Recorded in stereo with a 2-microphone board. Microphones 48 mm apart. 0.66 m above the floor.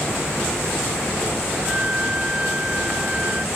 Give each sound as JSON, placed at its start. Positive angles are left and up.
{"t": 1.6, "sound": "a flute", "side_deg": -25}